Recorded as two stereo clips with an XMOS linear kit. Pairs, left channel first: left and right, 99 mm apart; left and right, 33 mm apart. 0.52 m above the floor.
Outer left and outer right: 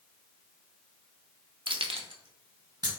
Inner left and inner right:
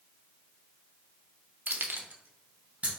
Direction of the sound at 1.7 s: 50° right (ahead or behind).